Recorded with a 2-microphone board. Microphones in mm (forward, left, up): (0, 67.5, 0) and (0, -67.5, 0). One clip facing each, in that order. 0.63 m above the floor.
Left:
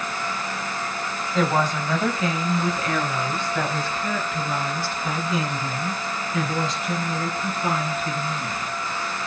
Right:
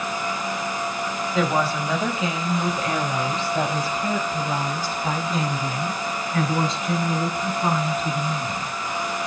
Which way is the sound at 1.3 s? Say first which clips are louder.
Left 1 dB; 5° right (ahead or behind).